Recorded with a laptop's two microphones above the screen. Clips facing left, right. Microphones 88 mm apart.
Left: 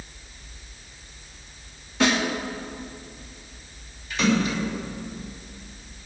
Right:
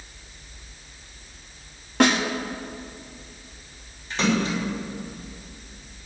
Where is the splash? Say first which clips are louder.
Left 1 dB; 35° right (ahead or behind), 5 m.